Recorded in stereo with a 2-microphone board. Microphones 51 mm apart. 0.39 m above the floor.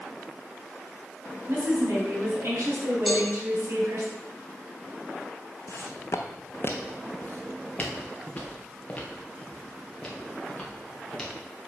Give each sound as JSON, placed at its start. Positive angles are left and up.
{"t": 1.5, "sound": "a woman speaking", "side_deg": -55, "distance_m": 3.5}
{"t": 3.1, "sound": "a cowbell", "side_deg": 0, "distance_m": 2.5}
{"t": 5.7, "sound": "footsteps", "side_deg": 70, "distance_m": 1.0}